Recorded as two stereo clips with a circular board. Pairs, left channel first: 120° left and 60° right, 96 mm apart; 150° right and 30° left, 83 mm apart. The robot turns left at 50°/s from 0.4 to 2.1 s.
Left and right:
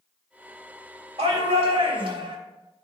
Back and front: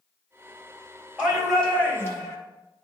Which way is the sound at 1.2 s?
45° right.